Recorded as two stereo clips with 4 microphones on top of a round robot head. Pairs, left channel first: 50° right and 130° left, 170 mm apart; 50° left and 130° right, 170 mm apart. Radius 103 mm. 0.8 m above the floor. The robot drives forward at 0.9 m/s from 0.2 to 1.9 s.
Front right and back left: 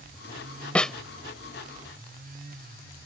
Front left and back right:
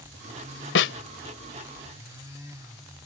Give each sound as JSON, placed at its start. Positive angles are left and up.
{"t": 0.8, "sound": "a snare drum", "azimuth_deg": 30}